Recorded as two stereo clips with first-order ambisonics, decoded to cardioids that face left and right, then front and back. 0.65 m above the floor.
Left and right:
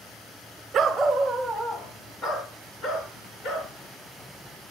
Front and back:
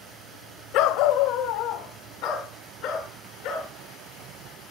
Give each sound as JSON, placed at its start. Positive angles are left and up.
{"t": 0.7, "sound": "a dog barking", "azimuth_deg": -30, "distance_m": 1.0}